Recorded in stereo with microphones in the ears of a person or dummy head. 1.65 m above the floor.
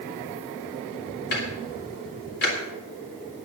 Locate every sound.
1.3 s ticking: 60° left (ahead or behind), 3 m